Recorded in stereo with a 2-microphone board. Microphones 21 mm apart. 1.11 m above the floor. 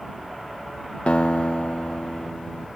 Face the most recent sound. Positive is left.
turn(degrees=80)